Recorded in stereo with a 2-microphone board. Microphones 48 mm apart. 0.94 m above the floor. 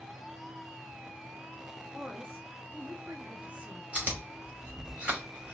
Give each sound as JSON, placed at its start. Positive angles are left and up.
{"t": 1.9, "sound": "a woman speaking", "side_deg": -55, "distance_m": 1.8}
{"t": 3.9, "sound": "chewing", "side_deg": -25, "distance_m": 1.9}